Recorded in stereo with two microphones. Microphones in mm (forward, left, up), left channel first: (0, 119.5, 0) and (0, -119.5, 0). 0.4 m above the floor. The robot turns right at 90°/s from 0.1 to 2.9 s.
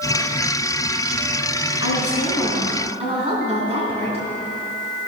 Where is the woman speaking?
105° left, 3.5 m; by 4.2 s 155° right, 3.5 m.